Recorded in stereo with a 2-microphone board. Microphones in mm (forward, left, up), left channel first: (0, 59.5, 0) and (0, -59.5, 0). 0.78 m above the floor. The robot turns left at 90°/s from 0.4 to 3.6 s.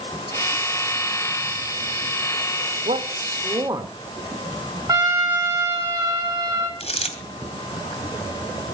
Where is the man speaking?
80° right, 2.5 m; by 3.9 s 150° right, 2.5 m.